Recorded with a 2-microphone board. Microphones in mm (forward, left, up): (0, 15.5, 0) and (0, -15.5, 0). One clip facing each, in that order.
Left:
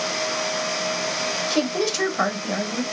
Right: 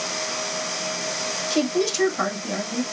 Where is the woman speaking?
10° left (ahead or behind), 1.2 m.